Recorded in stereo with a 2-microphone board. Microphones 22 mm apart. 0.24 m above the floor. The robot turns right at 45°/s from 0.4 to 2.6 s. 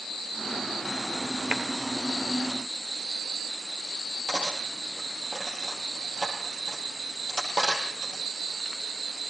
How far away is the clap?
About 3.5 m.